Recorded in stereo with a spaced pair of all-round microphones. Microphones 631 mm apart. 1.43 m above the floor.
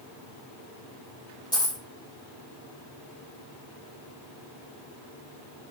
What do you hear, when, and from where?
1.5 s a dropped coin: 5° left (ahead or behind), 3 m